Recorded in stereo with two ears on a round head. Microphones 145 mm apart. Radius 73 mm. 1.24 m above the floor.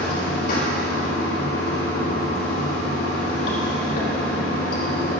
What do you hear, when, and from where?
0.0 s running water: 65° left (ahead or behind), 4.5 m